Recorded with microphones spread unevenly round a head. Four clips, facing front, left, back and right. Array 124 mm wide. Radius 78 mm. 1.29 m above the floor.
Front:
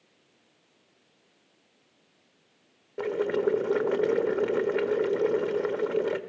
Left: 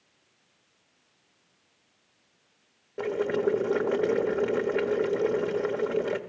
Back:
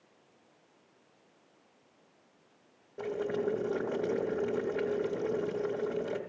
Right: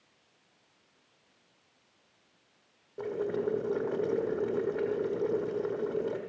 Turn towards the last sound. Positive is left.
turn(degrees=30)